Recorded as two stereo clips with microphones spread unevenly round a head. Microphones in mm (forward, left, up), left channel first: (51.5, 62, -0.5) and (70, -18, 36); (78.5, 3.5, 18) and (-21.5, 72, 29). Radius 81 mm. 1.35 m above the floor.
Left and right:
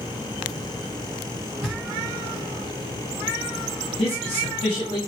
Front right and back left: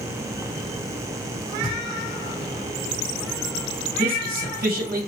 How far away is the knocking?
About 1.8 m.